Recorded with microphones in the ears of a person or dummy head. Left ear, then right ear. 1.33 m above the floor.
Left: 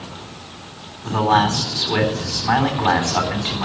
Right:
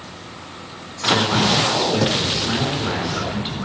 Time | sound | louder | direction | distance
1.0 | a man speaking | even | 45° left (ahead or behind) | 3.5 m